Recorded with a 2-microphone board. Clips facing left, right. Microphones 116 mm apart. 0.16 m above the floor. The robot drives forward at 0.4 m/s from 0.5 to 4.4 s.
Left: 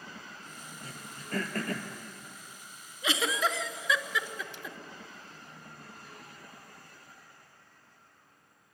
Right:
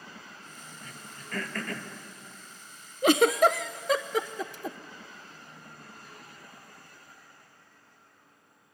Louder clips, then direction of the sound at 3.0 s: Right 10 dB; 55° right (ahead or behind).